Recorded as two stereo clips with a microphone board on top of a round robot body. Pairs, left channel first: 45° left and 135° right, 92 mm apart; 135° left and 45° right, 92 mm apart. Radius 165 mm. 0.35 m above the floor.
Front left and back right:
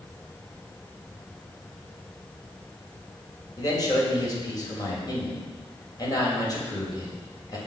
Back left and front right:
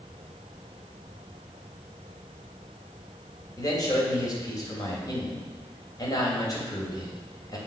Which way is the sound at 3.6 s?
90° left.